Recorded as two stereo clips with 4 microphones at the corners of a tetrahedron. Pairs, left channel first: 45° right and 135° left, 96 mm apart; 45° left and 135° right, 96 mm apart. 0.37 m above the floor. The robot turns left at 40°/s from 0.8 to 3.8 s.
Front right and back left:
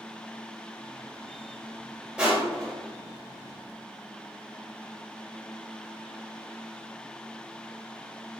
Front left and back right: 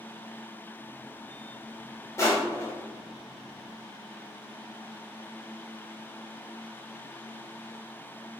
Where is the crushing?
60° left, 1.4 m; by 2.7 s 40° left, 1.4 m.